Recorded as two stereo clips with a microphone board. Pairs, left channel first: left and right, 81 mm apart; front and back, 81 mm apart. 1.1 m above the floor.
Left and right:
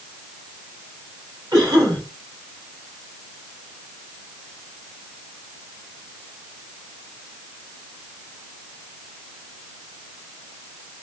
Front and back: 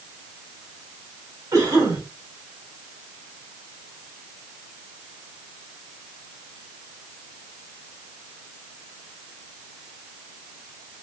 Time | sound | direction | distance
1.5 | a cough | 135° right | 3.5 m